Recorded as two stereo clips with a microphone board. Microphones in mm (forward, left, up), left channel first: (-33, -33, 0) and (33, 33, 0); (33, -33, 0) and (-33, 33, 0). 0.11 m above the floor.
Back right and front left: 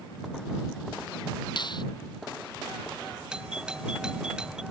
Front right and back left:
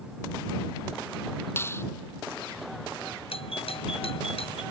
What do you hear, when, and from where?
1.6 s a finger snap: 105° right
3.3 s a doorbell: 35° right